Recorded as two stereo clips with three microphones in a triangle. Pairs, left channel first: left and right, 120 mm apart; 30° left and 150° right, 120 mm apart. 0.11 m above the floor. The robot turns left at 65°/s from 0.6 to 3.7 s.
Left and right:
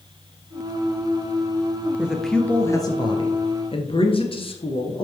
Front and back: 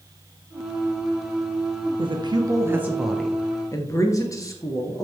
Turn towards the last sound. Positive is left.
turn(degrees=85)